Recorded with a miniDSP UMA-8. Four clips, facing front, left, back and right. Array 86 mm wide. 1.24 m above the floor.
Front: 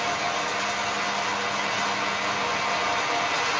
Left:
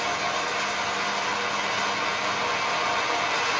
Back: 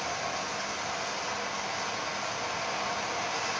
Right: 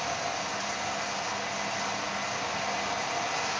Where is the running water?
60° left, 3 m.